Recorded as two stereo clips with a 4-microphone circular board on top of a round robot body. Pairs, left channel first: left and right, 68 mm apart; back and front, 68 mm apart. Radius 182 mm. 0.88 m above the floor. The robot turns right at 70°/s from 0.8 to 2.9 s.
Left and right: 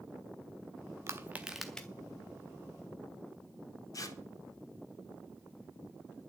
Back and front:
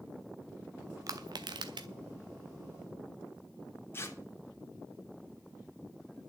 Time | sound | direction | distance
1.1 | crushing | 40° right | 0.5 m
3.9 | tearing paper | 125° left | 2.5 m